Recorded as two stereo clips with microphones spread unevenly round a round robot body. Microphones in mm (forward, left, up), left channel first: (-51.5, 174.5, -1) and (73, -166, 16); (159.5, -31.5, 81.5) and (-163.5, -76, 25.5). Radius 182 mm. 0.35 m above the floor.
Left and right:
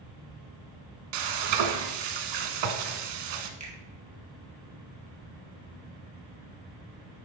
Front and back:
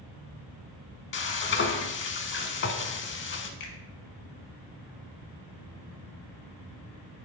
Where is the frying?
50° right, 0.9 m.